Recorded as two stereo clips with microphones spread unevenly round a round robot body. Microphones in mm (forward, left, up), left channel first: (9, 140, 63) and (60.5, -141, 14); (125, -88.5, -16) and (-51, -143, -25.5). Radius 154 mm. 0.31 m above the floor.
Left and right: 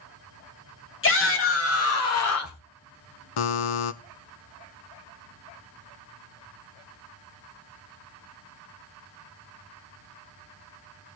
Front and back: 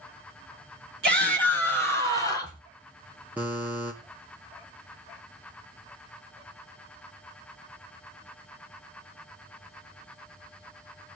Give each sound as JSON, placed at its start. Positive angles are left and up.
{"t": 1.0, "sound": "a shout", "azimuth_deg": 150, "distance_m": 3.0}
{"t": 3.4, "sound": "a buzzer", "azimuth_deg": 110, "distance_m": 0.8}